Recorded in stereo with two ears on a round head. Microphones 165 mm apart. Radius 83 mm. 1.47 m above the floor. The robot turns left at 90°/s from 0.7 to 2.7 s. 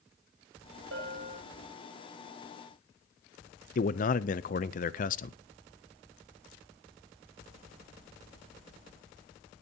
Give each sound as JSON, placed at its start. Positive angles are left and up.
{"t": 0.9, "sound": "a bell", "azimuth_deg": -95, "distance_m": 6.0}
{"t": 3.8, "sound": "a man speaking", "side_deg": 45, "distance_m": 0.6}